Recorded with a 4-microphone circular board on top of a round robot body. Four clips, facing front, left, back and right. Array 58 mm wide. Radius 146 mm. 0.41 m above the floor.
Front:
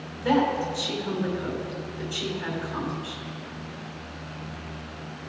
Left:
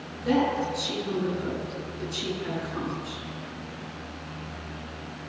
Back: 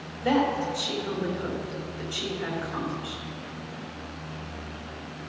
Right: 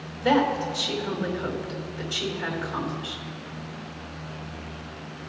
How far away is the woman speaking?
About 3 m.